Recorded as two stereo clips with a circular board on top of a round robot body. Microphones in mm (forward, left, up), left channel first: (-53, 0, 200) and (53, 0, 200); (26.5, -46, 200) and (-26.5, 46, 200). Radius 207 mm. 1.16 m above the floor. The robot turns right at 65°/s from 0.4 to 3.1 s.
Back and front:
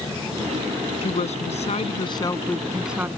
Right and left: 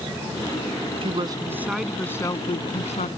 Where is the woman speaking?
155° left; by 3.1 s 70° right.